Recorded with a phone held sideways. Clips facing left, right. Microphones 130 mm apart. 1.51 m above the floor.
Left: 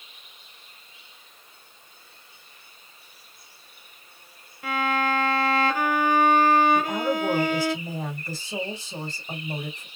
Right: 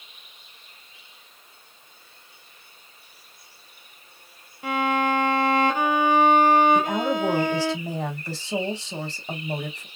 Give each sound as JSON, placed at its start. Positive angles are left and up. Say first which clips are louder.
{"t": 4.6, "sound": "a violin", "louder": "right 2 dB", "side_deg": -20, "distance_m": 0.7}
{"t": 6.8, "sound": "a woman speaking", "louder": "right 2 dB", "side_deg": -85, "distance_m": 1.8}